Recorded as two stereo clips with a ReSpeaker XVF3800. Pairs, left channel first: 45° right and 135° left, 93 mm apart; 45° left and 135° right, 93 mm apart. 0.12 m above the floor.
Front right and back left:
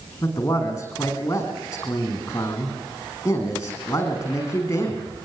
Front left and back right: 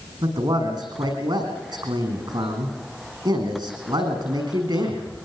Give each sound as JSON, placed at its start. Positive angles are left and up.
{"t": 0.2, "sound": "a man speaking", "azimuth_deg": -105, "distance_m": 7.5}